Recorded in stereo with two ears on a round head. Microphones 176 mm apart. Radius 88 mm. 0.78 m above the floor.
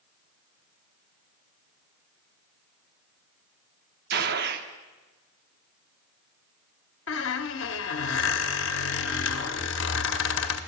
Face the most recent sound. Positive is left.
turn(degrees=65)  # may be behind; listen again after turning